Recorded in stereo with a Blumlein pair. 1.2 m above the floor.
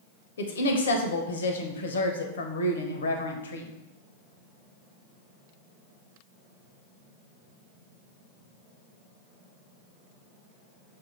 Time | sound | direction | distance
0.4 | a woman speaking | 65° left | 0.7 m